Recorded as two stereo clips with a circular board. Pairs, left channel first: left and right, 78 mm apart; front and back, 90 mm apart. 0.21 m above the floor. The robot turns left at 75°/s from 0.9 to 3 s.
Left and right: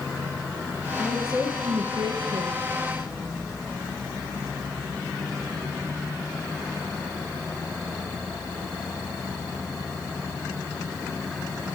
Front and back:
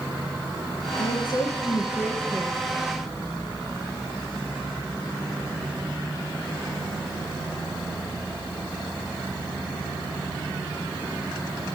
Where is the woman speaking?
5° right, 3.5 m; by 2.6 s 125° right, 3.5 m.